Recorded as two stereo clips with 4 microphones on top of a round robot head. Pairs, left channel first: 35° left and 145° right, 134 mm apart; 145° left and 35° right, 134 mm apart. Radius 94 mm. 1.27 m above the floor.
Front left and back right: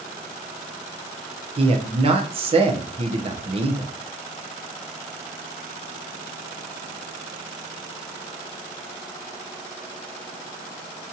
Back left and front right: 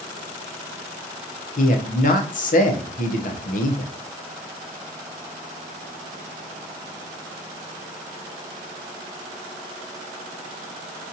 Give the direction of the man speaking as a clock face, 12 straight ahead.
6 o'clock.